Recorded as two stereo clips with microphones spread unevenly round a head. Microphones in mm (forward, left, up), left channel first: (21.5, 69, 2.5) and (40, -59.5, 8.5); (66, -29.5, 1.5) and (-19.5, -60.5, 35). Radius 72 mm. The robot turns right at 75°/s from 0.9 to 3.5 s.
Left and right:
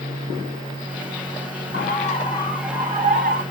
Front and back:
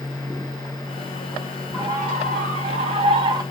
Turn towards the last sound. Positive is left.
turn(degrees=-105)